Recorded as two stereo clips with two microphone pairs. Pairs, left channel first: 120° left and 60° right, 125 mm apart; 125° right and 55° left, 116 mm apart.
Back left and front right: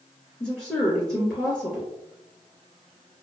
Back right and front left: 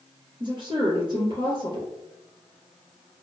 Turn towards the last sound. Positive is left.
turn(degrees=30)